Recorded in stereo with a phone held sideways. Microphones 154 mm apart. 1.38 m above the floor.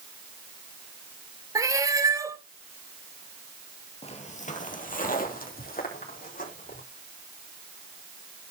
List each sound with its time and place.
1.6 s a cat meowing: 20° right (ahead or behind), 1.0 m
4.0 s footsteps: 40° left (ahead or behind), 1.8 m; by 6.8 s 65° left (ahead or behind), 5.5 m